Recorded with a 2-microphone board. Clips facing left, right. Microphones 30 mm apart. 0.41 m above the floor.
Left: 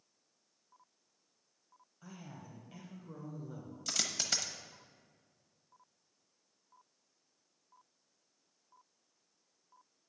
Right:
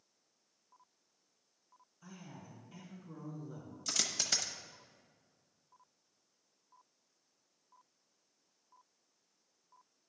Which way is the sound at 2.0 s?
50° left (ahead or behind).